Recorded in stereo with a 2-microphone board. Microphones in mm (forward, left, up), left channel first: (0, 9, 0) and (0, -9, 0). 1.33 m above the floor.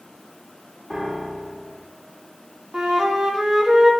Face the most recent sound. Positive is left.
turn(degrees=-30)  # may be behind; listen again after turning